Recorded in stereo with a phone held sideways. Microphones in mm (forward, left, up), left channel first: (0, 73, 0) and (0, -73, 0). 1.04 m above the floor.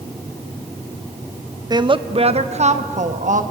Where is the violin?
I don't hear a violin.